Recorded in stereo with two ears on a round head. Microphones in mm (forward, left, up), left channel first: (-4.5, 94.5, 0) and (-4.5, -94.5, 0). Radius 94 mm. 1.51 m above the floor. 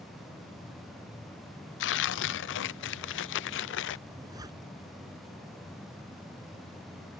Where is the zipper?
20° right (ahead or behind).